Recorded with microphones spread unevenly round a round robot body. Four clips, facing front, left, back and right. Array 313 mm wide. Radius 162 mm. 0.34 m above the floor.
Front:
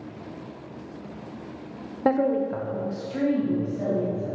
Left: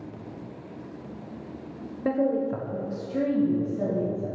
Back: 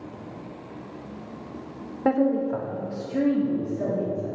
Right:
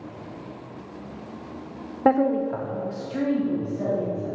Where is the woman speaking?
30° right, 0.9 m; by 4.3 s 90° left, 3 m.